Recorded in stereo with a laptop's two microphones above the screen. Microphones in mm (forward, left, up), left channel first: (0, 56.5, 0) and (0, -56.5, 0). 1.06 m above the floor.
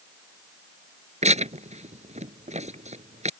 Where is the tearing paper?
70° right (ahead or behind).